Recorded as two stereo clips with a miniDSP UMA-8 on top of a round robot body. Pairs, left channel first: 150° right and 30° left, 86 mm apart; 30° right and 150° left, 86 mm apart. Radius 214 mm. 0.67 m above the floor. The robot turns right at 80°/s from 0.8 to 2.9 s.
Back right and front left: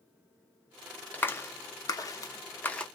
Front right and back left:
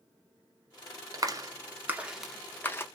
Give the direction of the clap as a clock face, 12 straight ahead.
7 o'clock.